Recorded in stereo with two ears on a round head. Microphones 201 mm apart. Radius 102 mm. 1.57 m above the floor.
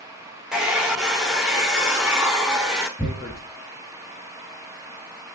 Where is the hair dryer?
5° right (ahead or behind), 1.7 m.